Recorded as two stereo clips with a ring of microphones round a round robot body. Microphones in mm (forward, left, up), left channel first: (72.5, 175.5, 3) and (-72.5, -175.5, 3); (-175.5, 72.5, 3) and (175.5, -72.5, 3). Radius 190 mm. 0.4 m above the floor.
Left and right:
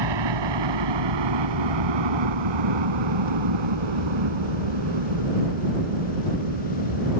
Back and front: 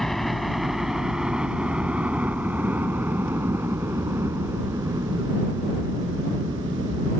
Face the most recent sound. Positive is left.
turn(degrees=-100)